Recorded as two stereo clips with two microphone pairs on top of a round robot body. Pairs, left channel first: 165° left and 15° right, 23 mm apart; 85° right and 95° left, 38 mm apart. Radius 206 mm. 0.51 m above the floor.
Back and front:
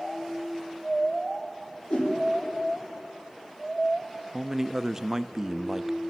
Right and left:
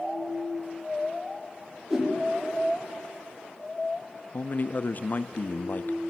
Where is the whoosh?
170° left, 8.5 m.